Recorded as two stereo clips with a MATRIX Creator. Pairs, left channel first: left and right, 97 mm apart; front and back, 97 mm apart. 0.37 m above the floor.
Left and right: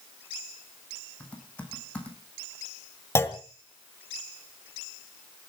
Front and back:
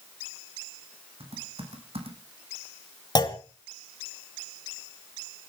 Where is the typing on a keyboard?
165° left, 3.5 m.